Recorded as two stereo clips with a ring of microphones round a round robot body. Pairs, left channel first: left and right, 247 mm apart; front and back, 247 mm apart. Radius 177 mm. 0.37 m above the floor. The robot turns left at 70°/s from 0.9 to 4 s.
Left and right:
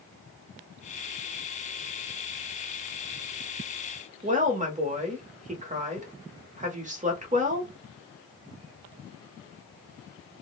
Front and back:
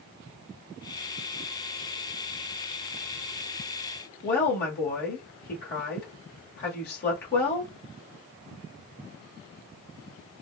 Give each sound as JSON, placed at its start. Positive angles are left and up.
{"t": 4.2, "sound": "a woman speaking", "azimuth_deg": -40, "distance_m": 1.2}